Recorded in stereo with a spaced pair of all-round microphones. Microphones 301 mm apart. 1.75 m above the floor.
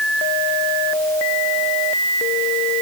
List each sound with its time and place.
Only background noise.